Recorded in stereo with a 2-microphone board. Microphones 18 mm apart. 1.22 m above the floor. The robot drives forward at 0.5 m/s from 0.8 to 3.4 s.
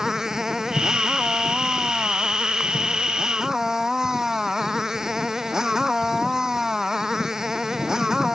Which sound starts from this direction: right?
A motorcycle, at 0.0 s.